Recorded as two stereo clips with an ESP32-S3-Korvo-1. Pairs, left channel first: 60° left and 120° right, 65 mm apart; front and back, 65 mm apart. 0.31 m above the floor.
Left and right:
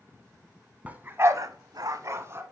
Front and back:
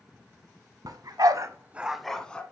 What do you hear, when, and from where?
0.8 s a dog barking: 170° left, 1.0 m; by 2.4 s 70° right, 1.1 m